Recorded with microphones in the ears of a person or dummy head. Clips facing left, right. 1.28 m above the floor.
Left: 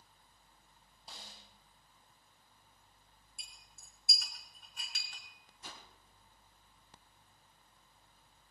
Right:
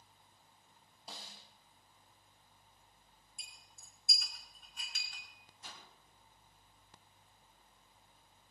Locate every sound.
1.1 s a snare drum: 65° right (ahead or behind), 2 m
3.4 s a clink: 55° left (ahead or behind), 3 m
5.6 s a whoosh: 75° left (ahead or behind), 4 m